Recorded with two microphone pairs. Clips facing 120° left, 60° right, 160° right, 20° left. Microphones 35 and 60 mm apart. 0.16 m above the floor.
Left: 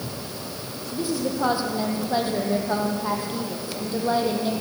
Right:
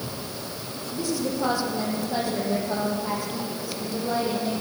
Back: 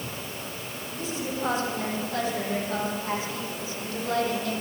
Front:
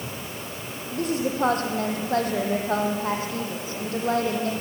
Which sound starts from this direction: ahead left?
A woman speaking, at 0.9 s.